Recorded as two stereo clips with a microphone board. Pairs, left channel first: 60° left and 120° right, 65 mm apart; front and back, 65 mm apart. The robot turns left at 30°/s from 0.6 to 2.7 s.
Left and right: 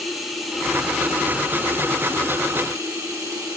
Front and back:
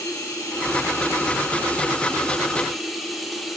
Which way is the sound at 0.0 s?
30° right.